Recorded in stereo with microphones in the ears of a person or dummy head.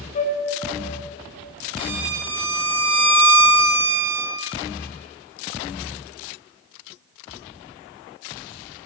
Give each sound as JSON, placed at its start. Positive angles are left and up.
{"t": 0.1, "sound": "a flute", "side_deg": 40, "distance_m": 1.7}
{"t": 1.8, "sound": "a violin", "side_deg": -80, "distance_m": 6.0}